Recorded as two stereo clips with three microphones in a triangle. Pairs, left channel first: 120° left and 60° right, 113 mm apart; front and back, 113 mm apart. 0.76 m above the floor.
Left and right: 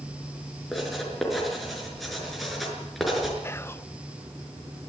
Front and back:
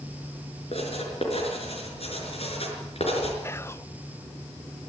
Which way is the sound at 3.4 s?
60° left.